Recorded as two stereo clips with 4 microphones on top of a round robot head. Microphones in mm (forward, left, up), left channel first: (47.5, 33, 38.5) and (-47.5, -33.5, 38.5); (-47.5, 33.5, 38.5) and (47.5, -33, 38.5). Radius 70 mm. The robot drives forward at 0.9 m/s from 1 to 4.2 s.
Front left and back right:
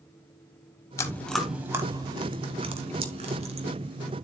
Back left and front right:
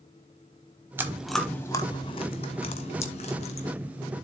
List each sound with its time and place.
1.0 s chewing: 15° left, 0.9 m; by 3.7 s straight behind, 2.5 m